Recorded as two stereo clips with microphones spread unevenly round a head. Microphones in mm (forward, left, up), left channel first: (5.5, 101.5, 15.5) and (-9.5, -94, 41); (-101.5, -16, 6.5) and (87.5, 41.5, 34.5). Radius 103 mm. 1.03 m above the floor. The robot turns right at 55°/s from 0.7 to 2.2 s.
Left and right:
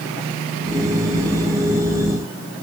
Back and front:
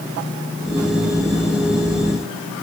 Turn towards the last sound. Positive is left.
No sound to turn to.